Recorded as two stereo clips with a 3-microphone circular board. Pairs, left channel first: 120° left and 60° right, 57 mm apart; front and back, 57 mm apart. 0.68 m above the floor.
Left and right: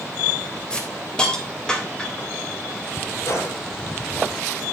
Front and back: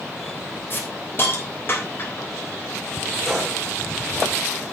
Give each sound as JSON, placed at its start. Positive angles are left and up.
{"t": 0.7, "sound": "a hiss", "azimuth_deg": 45, "distance_m": 3.0}
{"t": 3.3, "sound": "a gunshot", "azimuth_deg": 90, "distance_m": 4.5}